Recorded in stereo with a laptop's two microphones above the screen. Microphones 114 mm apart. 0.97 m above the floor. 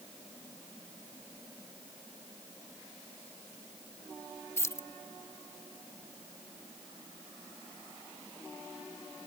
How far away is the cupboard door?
I don't hear a cupboard door.